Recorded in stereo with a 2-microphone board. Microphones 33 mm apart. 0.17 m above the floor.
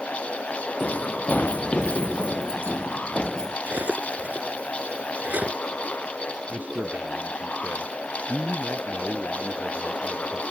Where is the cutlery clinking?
60° right (ahead or behind).